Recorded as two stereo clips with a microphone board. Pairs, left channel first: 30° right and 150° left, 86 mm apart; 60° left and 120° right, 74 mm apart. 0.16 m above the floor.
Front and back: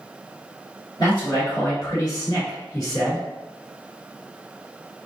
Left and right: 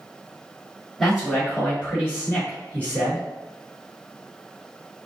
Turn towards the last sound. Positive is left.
turn(degrees=-80)